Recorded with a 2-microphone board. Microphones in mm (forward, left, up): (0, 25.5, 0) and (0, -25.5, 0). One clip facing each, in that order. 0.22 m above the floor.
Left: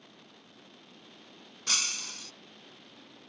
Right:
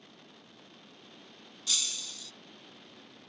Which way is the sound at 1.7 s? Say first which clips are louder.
Left 3 dB; 60° left (ahead or behind).